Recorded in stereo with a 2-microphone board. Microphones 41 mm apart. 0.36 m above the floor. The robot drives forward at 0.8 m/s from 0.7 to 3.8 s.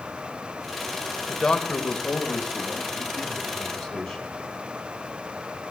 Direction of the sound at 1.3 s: 25° left (ahead or behind).